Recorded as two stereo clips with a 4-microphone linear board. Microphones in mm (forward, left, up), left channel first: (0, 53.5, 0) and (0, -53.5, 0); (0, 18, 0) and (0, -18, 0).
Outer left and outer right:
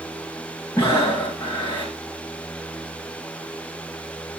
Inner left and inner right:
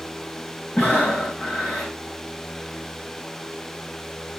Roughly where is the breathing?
Left.